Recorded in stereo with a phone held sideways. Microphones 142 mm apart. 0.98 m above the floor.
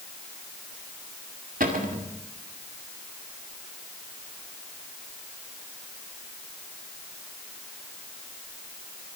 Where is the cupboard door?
80° right, 1.9 m.